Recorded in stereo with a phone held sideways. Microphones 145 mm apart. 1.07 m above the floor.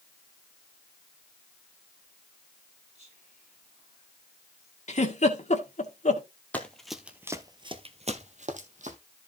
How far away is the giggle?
About 1.7 m.